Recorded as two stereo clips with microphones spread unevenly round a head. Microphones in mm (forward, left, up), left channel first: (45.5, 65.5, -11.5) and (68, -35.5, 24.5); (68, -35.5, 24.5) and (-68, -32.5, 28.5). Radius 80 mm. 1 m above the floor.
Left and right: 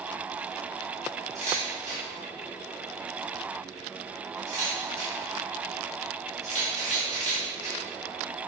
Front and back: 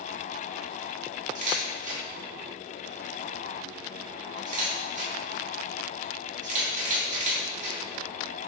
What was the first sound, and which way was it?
A camera shutter, 150° right.